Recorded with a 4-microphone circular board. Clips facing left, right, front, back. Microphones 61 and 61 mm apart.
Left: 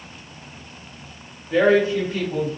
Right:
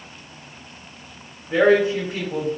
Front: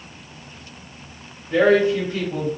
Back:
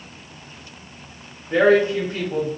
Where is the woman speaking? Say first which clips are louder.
Even, even; 150° right, 1.5 m.